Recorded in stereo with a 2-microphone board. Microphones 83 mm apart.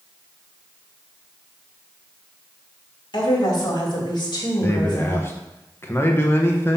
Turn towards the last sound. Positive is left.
turn(degrees=30)  # may be behind; listen again after turning